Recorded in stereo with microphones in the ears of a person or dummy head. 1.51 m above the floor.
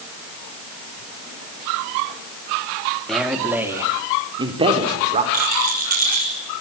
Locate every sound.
3.1 s a man speaking: centre (ahead or behind), 3 m; by 5.2 s 35° right (ahead or behind), 4 m
5.3 s a rattle: 45° right (ahead or behind), 5.5 m